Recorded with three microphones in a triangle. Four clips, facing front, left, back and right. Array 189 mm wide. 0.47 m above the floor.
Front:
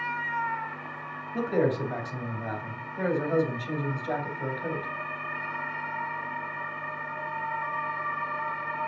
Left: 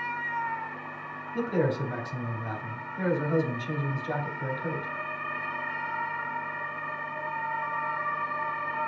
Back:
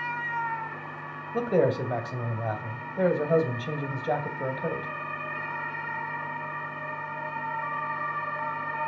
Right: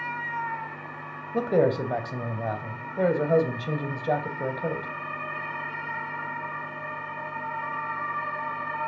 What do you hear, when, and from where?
1.3 s a man speaking: 115° right, 2.5 m